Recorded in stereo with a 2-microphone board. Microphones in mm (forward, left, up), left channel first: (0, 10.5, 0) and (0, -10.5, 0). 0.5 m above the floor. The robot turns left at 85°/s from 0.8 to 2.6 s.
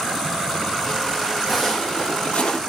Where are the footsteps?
10° right (ahead or behind), 1.5 m; by 2.6 s 30° left (ahead or behind), 0.9 m.